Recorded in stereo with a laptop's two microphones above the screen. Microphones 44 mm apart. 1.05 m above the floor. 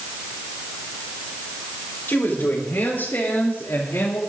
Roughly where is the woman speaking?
Left.